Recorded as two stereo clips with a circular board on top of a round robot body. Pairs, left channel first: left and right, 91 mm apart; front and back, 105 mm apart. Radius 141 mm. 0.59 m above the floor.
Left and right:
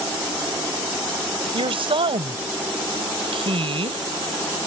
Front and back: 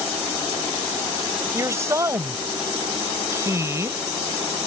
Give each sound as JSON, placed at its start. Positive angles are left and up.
{"t": 1.5, "sound": "a woman speaking", "azimuth_deg": -115}